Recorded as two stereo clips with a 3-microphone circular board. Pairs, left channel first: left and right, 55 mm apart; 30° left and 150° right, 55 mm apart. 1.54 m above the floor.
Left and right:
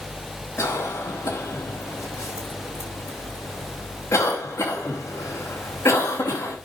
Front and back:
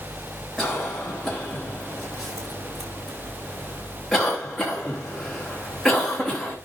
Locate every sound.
0.6 s a cough: 115° left, 4 m